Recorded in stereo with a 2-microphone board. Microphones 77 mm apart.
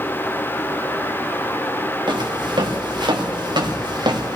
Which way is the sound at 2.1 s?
85° right.